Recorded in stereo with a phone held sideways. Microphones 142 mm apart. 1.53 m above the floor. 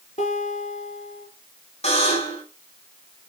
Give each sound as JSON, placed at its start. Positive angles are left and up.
{"t": 0.2, "sound": "a guitar", "side_deg": 55, "distance_m": 5.5}
{"t": 1.8, "sound": "a buzzer", "side_deg": 50, "distance_m": 5.5}